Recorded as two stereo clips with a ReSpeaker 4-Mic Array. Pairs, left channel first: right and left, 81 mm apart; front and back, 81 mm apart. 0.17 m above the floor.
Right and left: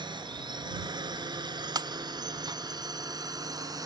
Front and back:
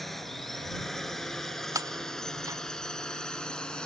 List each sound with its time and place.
0.0 s a drone: 85° left; by 3.9 s 75° left
1.8 s breaking glass: 130° left